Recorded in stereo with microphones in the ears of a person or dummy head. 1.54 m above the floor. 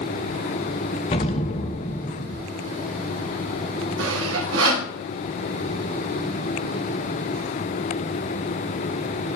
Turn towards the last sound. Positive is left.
turn(degrees=-85)